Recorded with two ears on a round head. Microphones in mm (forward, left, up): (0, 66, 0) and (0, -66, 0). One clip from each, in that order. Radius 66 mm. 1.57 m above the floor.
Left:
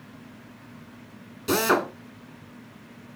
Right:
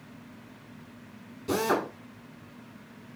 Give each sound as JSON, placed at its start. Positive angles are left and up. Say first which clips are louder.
{"t": 1.5, "sound": "a drill", "louder": "left 5 dB", "side_deg": 45, "distance_m": 1.8}